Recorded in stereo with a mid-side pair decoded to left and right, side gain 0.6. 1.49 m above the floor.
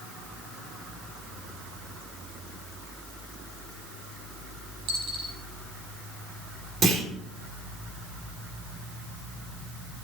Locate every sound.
4.9 s a dropped coin: 65° right, 6.5 m
6.8 s a clunk: 35° right, 4.5 m